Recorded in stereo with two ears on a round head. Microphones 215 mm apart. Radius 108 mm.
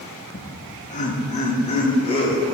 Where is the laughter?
40° left (ahead or behind), 1.1 m; by 2.5 s 25° left (ahead or behind), 3.5 m.